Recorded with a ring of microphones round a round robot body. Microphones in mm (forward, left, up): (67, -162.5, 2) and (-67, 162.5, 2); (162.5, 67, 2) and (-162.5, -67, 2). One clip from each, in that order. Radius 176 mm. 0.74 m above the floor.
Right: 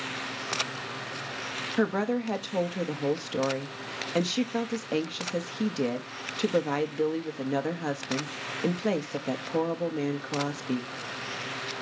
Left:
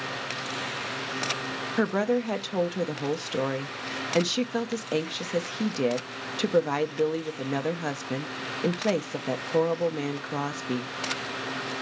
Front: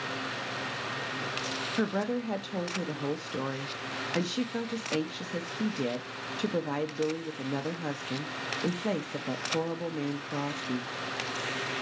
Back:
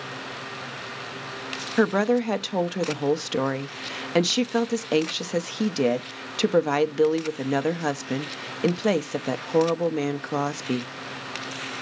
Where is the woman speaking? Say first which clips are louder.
Left 3 dB, back 13 dB; 175° right, 0.7 m.